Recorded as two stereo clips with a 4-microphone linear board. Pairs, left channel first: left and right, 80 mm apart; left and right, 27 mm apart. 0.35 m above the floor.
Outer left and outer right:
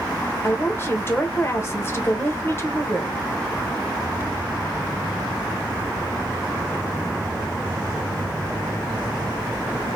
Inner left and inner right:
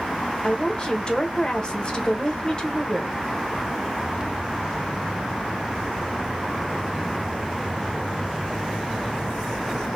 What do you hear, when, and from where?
0.4 s a woman speaking: 30° left (ahead or behind), 1.0 m